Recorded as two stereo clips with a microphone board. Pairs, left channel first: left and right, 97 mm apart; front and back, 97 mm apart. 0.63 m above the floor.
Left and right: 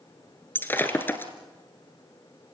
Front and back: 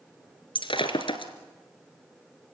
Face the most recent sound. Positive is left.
turn(degrees=25)